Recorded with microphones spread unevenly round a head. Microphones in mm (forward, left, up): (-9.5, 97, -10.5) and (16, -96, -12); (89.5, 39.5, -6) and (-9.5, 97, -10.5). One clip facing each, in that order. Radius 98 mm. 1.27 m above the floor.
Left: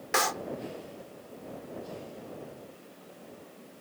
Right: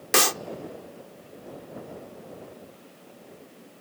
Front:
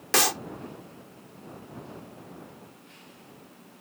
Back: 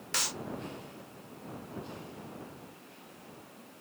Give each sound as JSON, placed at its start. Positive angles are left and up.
{"t": 0.1, "sound": "a clap", "azimuth_deg": -40}